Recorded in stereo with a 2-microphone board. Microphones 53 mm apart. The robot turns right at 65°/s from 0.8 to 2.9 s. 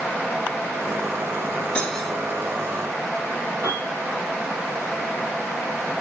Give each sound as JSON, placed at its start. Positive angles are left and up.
{"t": 1.8, "sound": "cutlery clinking", "side_deg": 20, "distance_m": 1.0}
{"t": 3.6, "sound": "a piano", "side_deg": -65, "distance_m": 3.5}